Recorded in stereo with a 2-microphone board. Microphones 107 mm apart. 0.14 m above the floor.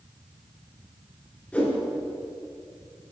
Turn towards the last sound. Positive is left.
turn(degrees=10)  # may be behind; listen again after turning